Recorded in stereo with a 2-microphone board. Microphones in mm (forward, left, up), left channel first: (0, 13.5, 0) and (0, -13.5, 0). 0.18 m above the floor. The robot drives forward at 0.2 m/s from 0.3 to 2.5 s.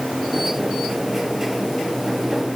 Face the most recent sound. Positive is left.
No sound to turn to.